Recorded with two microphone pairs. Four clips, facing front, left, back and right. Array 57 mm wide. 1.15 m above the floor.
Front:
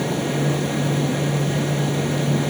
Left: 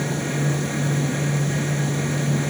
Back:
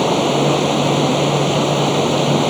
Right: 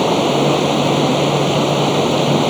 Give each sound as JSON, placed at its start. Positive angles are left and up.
{"t": 0.0, "sound": "running water", "azimuth_deg": -135}